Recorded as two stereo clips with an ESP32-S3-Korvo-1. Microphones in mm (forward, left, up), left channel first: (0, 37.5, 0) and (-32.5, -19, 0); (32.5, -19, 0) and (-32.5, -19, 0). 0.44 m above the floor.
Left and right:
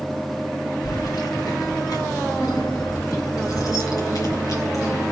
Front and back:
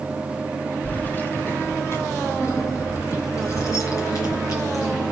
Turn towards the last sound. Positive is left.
turn(degrees=30)